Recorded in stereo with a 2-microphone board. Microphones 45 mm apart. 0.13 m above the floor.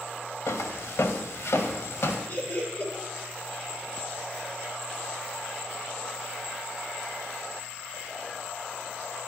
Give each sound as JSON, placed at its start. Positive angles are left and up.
{"t": 0.5, "sound": "footsteps", "side_deg": 85, "distance_m": 1.4}
{"t": 2.3, "sound": "laughter", "side_deg": 40, "distance_m": 2.0}